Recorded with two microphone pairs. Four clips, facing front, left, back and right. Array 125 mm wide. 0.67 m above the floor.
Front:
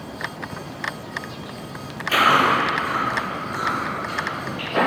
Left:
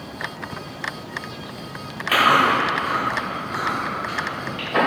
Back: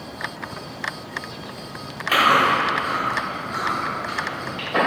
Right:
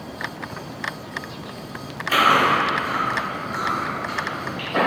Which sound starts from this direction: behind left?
Chewing, at 2.1 s.